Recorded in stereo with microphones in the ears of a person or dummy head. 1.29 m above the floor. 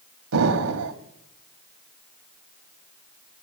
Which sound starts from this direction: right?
An explosion, at 0.3 s.